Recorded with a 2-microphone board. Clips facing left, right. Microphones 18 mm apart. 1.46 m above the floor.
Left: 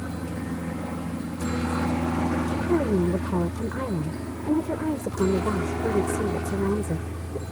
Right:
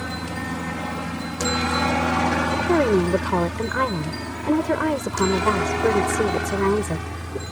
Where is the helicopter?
65° right (ahead or behind); by 7.5 s 50° right (ahead or behind).